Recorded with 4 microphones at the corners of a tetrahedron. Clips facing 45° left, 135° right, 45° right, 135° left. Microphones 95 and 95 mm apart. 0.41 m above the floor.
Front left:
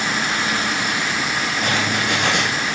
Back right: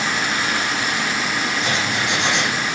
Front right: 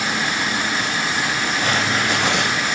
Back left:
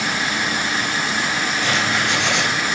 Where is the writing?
Straight ahead, 7.5 m.